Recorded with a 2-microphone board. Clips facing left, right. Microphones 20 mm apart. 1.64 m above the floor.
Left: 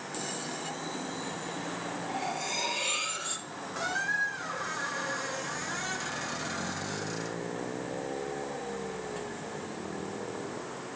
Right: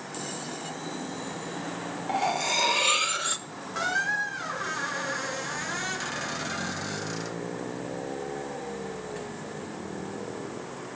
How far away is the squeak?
About 0.9 m.